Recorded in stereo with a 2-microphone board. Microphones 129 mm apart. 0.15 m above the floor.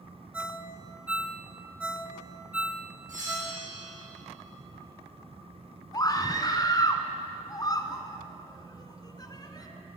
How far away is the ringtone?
About 0.7 m.